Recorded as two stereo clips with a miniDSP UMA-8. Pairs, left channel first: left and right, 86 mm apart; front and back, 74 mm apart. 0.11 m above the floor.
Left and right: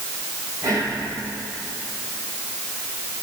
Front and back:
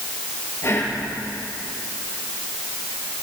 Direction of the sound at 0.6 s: 50° right.